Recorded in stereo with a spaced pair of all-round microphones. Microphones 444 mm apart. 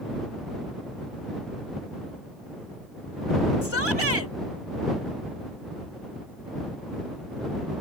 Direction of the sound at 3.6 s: 75° left (ahead or behind).